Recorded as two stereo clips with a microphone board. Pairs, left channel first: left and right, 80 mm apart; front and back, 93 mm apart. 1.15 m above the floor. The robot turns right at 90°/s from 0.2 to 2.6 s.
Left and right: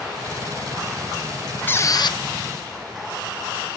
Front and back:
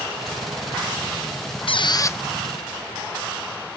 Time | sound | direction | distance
1.7 | a squeak | 20° left | ?